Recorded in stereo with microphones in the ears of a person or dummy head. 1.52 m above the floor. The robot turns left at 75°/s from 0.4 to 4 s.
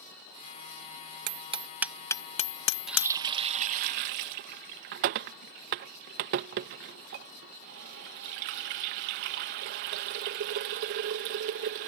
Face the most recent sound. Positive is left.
turn(degrees=-45)  # may be behind; listen again after turning